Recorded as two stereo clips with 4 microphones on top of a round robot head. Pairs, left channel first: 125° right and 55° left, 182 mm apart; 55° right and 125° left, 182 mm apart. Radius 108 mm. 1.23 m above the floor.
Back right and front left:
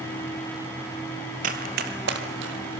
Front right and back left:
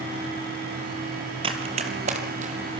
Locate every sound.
1.4 s running footsteps: 75° left, 1.4 m